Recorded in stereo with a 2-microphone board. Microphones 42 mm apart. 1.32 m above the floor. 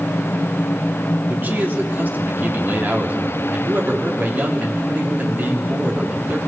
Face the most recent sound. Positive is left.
turn(degrees=-50)  # may be behind; listen again after turning